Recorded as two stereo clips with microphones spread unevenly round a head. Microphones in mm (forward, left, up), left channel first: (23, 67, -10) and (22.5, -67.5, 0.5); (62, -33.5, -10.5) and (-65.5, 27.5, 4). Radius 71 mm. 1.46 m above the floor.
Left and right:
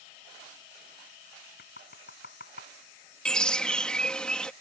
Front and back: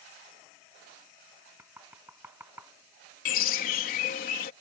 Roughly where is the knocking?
Left.